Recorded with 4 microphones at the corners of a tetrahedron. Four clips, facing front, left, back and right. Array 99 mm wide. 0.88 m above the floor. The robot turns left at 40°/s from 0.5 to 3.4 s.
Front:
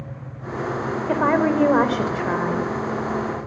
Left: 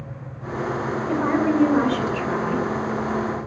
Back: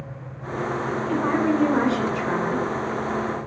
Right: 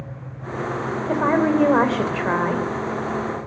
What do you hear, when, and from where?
1.1 s a woman speaking: 25° right, 3.5 m; by 2.6 s 90° right, 3.5 m